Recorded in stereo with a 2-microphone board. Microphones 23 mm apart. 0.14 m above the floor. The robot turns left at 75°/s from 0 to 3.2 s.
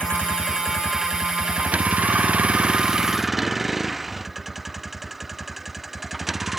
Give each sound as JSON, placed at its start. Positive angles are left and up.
{"t": 0.0, "sound": "a vehicle", "side_deg": 60}